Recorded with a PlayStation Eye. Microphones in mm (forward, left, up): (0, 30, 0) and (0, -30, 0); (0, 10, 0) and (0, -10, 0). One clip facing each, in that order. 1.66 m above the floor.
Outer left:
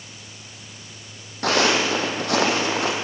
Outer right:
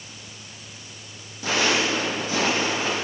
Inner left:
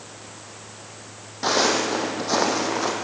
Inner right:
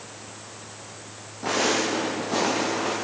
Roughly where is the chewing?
I don't hear chewing.